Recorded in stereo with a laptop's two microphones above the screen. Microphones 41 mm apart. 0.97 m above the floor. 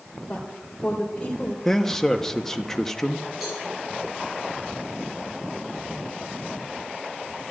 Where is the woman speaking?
25° left (ahead or behind), 3.5 m.